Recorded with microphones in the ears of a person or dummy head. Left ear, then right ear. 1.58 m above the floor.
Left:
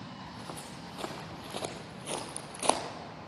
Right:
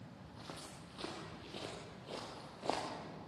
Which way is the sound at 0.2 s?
10° left (ahead or behind).